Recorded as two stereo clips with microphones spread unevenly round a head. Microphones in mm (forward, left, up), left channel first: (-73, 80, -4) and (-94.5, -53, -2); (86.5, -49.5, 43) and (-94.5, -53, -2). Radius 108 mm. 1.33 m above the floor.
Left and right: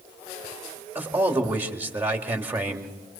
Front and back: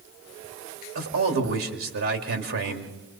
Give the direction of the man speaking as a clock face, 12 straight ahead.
6 o'clock.